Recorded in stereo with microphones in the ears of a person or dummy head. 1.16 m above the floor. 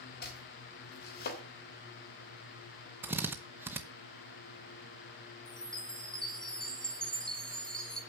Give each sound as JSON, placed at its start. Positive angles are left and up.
{"t": 0.2, "sound": "chopping", "side_deg": 45, "distance_m": 3.0}
{"t": 3.0, "sound": "a drill", "side_deg": -15, "distance_m": 0.9}
{"t": 5.5, "sound": "a chime", "side_deg": 0, "distance_m": 1.8}